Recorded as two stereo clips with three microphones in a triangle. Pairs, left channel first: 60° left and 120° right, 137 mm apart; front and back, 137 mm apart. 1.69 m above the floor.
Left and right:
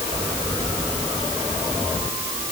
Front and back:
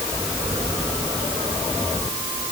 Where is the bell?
I don't hear a bell.